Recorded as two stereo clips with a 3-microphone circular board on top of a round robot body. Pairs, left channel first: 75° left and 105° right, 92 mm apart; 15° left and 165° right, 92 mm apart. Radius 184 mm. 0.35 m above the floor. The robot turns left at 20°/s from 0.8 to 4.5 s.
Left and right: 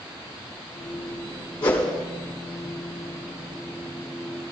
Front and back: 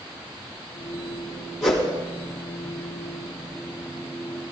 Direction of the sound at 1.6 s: 110° left.